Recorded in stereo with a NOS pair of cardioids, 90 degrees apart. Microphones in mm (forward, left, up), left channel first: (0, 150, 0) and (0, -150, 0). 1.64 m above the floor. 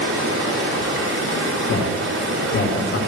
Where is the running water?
50° right, 3 m.